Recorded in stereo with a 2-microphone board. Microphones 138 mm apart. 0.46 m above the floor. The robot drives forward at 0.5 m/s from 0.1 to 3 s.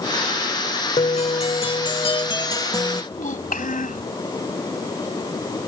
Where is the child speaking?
75° left (ahead or behind).